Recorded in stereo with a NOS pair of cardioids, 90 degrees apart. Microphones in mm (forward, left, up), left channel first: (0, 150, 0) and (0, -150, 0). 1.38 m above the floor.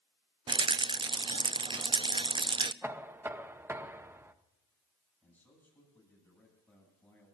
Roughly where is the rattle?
Ahead.